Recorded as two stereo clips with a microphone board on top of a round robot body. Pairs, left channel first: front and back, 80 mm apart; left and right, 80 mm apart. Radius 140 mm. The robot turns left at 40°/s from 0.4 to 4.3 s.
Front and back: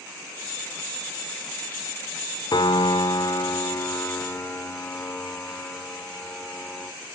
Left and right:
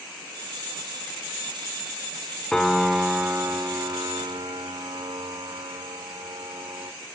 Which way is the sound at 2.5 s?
10° left.